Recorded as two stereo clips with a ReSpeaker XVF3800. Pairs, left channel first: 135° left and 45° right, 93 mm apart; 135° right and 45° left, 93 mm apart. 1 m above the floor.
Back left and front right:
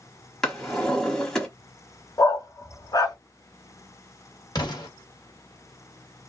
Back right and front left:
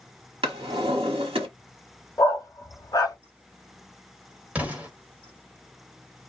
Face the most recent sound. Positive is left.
turn(degrees=115)